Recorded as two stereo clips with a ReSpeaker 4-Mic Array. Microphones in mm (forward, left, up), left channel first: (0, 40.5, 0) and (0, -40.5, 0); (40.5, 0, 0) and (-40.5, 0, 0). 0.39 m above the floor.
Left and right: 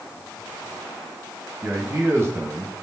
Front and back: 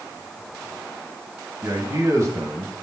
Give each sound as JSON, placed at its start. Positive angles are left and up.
{"t": 1.6, "sound": "a man speaking", "azimuth_deg": -140, "distance_m": 2.5}